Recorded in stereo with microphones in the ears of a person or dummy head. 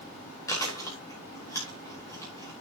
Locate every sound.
0.5 s chewing: 20° left (ahead or behind), 5.5 m